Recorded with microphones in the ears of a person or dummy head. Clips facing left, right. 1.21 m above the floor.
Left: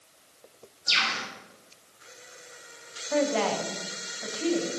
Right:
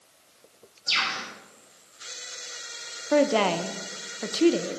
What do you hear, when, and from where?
0.9 s a bird: 20° left (ahead or behind), 6 m
3.1 s a woman speaking: 65° right (ahead or behind), 0.7 m